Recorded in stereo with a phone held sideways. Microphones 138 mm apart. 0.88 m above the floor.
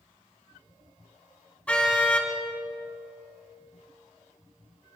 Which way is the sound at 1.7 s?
10° left (ahead or behind).